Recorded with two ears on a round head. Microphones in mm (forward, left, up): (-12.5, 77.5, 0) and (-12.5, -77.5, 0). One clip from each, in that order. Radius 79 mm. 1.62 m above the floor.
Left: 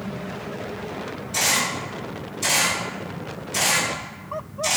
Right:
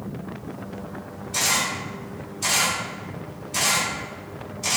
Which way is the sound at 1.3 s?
10° right (ahead or behind).